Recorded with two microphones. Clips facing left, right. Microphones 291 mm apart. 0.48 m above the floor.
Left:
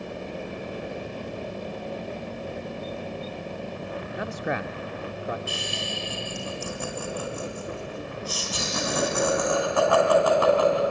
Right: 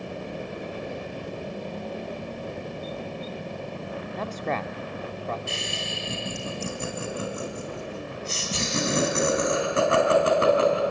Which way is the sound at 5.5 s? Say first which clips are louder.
Left 1 dB; 30° right (ahead or behind).